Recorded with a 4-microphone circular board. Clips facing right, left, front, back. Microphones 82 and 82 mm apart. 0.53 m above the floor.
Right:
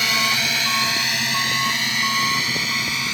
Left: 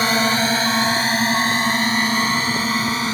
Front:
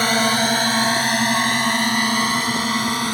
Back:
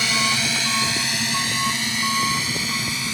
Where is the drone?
40° left.